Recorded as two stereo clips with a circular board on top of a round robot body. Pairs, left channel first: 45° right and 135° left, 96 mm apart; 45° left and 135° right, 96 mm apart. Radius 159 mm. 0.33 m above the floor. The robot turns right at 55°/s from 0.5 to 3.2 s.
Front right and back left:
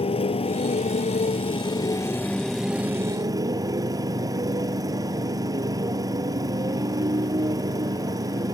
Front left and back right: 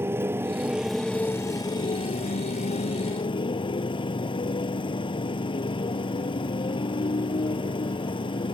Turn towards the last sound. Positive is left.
turn(degrees=80)